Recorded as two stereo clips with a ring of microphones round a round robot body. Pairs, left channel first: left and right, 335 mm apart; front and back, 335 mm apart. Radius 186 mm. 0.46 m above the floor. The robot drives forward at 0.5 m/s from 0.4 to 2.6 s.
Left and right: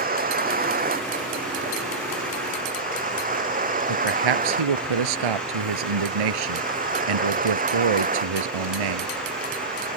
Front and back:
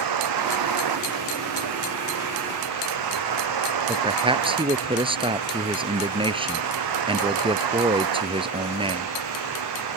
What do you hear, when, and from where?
0.0 s a vehicle: 155° right
3.9 s a man speaking: 105° right